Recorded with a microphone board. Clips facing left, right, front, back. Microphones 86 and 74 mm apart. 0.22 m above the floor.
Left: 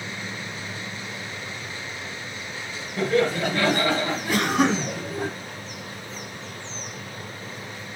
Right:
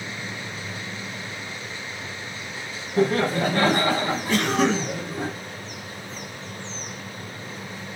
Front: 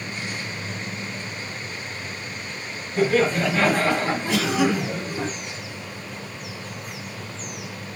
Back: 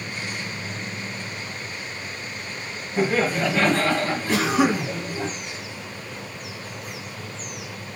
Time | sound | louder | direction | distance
3.0 | laughter | right 1 dB, front 2 dB | 115° right | 1.6 m
4.3 | a cough | even, back 2 dB | 165° left | 1.8 m